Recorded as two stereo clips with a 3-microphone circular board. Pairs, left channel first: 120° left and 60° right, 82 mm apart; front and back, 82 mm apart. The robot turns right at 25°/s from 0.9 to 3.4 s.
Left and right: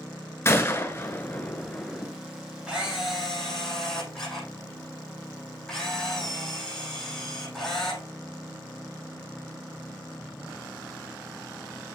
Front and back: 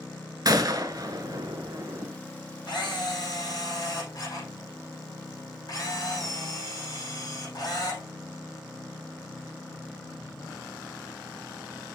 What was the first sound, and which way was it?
A gunshot, 170° left.